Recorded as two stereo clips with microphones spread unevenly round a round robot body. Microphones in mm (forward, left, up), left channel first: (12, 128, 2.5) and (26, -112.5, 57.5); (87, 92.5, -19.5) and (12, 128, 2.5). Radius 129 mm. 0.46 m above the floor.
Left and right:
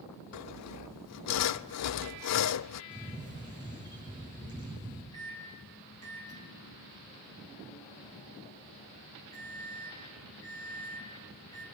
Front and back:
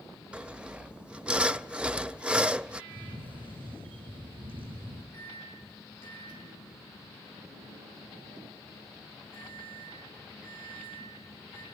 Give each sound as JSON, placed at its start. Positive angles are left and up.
{"t": 0.3, "sound": "sawing", "azimuth_deg": 75, "distance_m": 0.5}
{"t": 2.9, "sound": "a camera shutter", "azimuth_deg": 170, "distance_m": 5.5}
{"t": 5.1, "sound": "a microwave", "azimuth_deg": 165, "distance_m": 4.0}